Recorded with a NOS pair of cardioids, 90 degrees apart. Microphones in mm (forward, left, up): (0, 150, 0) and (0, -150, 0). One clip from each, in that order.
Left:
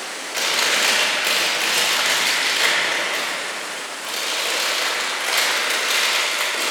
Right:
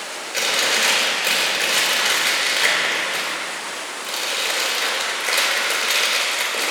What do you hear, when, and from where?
0.3 s chewing: straight ahead, 3 m